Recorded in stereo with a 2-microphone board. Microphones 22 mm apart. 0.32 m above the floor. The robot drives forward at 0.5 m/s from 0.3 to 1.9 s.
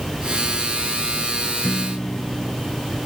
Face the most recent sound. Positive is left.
turn(degrees=55)  # may be behind; listen again after turning